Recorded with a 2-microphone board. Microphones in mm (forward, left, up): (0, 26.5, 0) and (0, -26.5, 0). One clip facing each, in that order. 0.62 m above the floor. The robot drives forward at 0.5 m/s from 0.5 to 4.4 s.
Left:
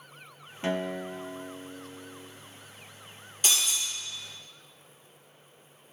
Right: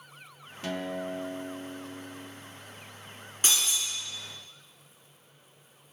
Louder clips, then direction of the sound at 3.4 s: Even; 35° right (ahead or behind).